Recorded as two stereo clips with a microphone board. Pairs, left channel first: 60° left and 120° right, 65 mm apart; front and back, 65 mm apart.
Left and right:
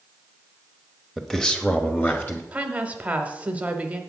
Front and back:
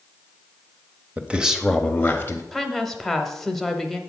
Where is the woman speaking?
80° right, 1.0 m.